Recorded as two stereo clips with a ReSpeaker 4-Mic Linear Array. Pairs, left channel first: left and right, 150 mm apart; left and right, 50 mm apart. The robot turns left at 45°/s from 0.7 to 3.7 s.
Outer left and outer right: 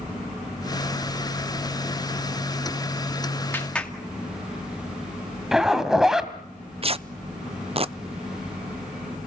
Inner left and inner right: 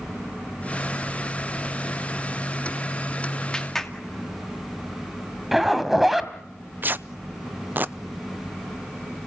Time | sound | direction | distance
3.5 | a clap | 15° left (ahead or behind) | 2.5 m
5.5 | a zipper | 5° right (ahead or behind) | 1.8 m
6.8 | tearing paper | 40° right (ahead or behind) | 0.6 m